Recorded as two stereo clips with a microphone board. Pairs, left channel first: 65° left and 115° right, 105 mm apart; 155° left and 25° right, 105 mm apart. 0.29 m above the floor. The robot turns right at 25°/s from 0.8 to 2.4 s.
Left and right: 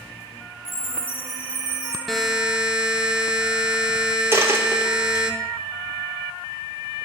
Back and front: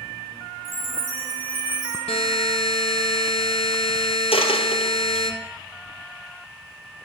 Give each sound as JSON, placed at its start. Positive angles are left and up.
{"t": 0.7, "sound": "a chime", "azimuth_deg": 5, "distance_m": 4.0}
{"t": 2.1, "sound": "a buzzer", "azimuth_deg": 155, "distance_m": 1.3}
{"t": 4.3, "sound": "a dropped coin", "azimuth_deg": 180, "distance_m": 1.6}